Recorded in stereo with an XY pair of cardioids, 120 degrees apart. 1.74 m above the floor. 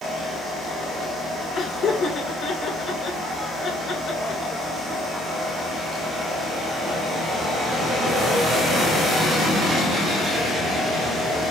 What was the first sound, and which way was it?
Laughter, 50° left.